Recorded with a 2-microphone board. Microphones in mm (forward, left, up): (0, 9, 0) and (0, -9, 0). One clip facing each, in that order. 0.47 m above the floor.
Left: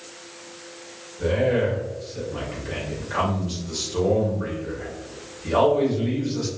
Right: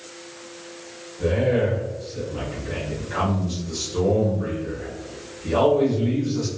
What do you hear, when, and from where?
1.2 s a man speaking: 15° left (ahead or behind), 1.7 m